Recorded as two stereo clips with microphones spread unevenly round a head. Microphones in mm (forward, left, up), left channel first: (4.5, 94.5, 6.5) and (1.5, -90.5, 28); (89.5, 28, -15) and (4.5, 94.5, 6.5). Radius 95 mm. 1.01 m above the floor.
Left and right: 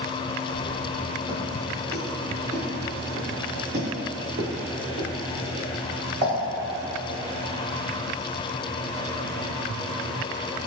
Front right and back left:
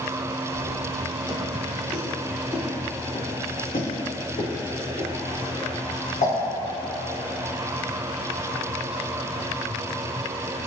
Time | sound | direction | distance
0.6 | footsteps | 170° right | 1.3 m